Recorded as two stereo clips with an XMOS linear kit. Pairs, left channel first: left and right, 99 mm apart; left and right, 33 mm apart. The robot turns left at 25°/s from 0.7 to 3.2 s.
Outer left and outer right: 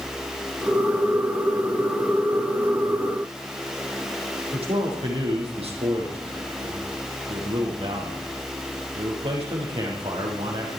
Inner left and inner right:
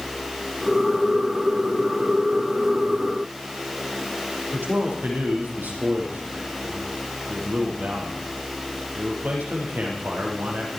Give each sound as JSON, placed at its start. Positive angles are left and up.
{"t": 4.5, "sound": "a man speaking", "side_deg": -75, "distance_m": 6.0}